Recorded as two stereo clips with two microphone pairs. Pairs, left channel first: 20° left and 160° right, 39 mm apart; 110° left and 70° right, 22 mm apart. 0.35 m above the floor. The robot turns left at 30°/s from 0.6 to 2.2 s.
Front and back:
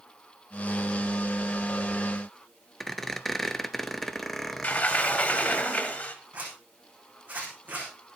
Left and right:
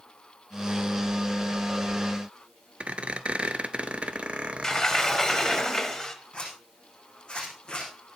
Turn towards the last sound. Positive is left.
turn(degrees=150)